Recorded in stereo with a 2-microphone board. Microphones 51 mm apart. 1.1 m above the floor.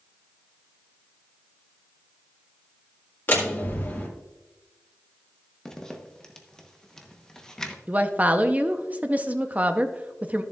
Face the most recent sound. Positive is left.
turn(degrees=-35)  # may be behind; listen again after turning